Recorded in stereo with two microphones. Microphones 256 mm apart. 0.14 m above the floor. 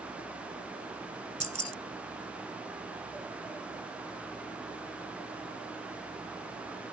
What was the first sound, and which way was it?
Keys jangling, 25° right (ahead or behind).